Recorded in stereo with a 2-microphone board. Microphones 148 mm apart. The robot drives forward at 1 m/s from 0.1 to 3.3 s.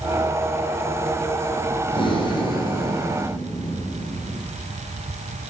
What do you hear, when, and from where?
1.9 s breathing: 40° left (ahead or behind), 2.0 m; by 4.4 s 25° left (ahead or behind), 3 m